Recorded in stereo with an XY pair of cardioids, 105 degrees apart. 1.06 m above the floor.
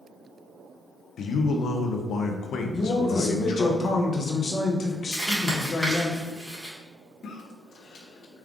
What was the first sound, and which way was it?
A man speaking, 60° left.